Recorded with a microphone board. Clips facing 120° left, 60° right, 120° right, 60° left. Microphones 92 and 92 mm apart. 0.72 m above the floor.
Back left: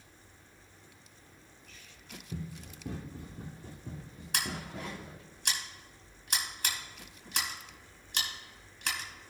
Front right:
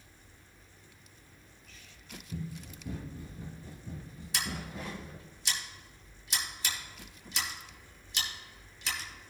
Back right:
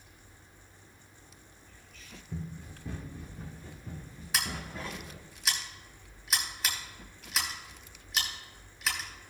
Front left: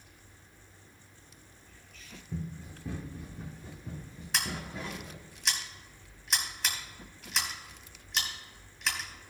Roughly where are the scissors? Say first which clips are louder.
Back left 1 dB, even; behind left.